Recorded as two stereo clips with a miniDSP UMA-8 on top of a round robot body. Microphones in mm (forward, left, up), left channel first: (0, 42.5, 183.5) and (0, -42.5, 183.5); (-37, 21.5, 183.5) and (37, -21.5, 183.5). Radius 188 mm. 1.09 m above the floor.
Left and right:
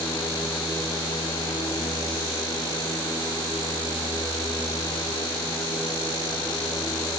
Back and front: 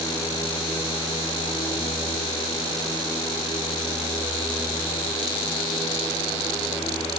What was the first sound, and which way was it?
Only background noise.